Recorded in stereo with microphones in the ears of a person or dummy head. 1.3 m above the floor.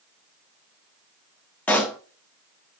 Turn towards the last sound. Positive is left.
turn(degrees=10)  # may be behind; listen again after turning